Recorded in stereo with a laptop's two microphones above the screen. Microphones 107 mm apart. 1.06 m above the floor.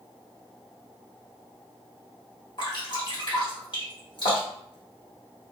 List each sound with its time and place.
2.6 s dripping: 50° left (ahead or behind), 1.5 m